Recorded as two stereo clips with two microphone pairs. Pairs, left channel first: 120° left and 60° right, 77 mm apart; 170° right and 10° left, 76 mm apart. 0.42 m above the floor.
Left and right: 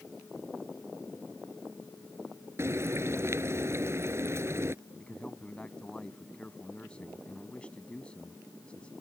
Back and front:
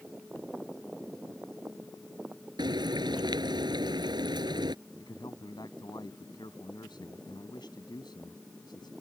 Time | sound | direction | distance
2.6 | frying | 5° right | ?
5.0 | a man speaking | 165° right | ?